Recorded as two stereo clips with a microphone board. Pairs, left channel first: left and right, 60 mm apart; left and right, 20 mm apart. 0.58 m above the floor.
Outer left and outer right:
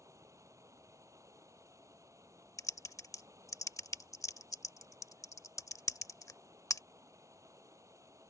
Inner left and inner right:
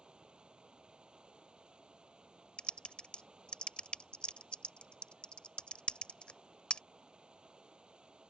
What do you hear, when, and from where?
0.0 s running water: 60° right (ahead or behind)
2.6 s typing on a keyboard: 70° left (ahead or behind)